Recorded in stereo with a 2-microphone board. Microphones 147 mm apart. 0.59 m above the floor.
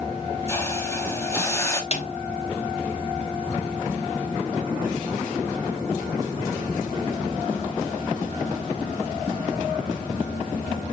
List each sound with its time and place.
0.5 s a hiss: 20° left (ahead or behind), 1.0 m
1.9 s a snare drum: 50° left (ahead or behind), 1.0 m